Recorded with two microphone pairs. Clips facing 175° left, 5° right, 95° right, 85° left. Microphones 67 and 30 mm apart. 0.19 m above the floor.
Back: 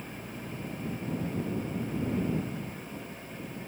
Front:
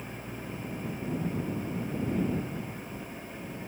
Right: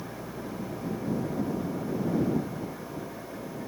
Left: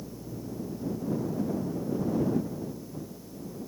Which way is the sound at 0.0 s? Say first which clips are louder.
Front 1 dB, right 2 dB; 85° right.